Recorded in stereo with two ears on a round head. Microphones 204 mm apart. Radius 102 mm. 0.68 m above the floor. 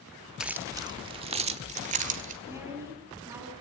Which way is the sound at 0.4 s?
5° right (ahead or behind).